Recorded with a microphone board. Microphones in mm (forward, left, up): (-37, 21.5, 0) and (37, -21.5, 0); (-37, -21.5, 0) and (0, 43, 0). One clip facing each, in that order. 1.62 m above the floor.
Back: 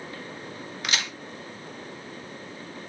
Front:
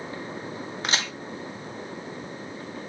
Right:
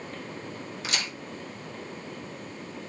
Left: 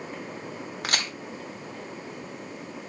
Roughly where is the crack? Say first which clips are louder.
Front 2 dB, left 3 dB; ahead left.